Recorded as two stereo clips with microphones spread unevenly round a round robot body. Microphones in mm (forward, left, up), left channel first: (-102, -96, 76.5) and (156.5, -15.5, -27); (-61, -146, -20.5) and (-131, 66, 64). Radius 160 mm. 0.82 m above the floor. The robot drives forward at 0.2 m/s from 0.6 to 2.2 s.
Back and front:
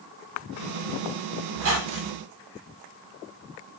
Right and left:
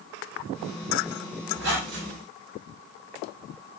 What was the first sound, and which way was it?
A squeak, 45° left.